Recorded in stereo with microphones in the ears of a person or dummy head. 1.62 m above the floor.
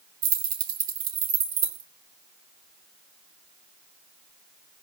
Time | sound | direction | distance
0.2 | keys jangling | 70° right (ahead or behind) | 2.5 m